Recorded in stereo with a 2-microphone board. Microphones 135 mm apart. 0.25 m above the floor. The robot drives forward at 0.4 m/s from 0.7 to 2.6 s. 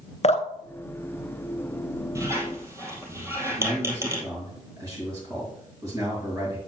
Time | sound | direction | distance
0.2 | dripping | 55° left (ahead or behind) | 0.7 m
2.1 | a squeak | 25° right (ahead or behind) | 2 m
3.6 | a man speaking | 25° right (ahead or behind) | 3.5 m